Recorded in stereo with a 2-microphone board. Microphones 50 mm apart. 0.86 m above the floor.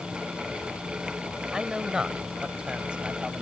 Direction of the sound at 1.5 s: 10° right (ahead or behind).